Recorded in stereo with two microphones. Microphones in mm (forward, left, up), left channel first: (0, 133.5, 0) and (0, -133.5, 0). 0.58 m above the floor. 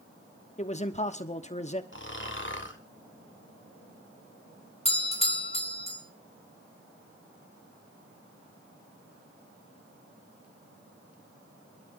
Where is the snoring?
45° left (ahead or behind), 1.4 m.